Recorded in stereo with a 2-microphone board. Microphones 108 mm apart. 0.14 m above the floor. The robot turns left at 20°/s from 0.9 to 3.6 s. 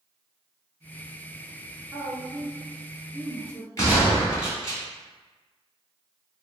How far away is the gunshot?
About 1.2 m.